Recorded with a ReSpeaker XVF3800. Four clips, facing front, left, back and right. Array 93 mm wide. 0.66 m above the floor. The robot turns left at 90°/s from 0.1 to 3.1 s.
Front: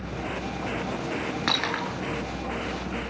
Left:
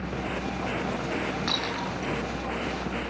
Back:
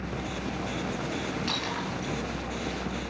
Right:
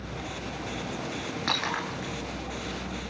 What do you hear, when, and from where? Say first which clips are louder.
1.5 s breaking glass: even, front 4 dB; straight ahead, 6.5 m; by 2.1 s 55° right, 6.5 m